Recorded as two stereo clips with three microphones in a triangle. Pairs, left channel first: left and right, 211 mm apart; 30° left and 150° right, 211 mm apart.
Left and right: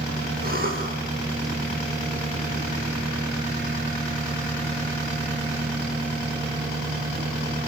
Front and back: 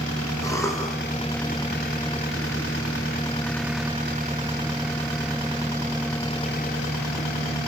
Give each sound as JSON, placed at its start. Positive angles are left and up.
{"t": 0.4, "sound": "a cough", "azimuth_deg": -45, "distance_m": 7.0}